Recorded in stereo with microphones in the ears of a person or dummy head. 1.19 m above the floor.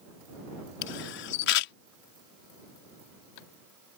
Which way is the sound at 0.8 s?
65° left (ahead or behind).